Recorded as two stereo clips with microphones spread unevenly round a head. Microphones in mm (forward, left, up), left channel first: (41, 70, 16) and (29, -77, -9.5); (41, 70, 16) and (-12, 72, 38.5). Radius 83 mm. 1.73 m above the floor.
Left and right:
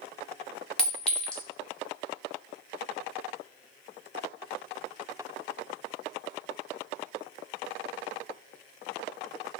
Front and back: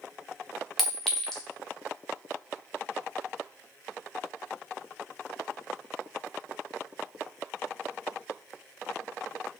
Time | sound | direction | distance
0.8 | a clink | 140° left | 0.6 m